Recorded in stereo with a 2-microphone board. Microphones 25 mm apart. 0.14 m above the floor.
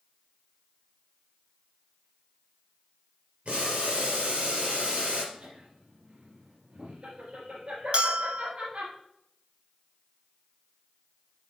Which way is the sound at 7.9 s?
50° right (ahead or behind).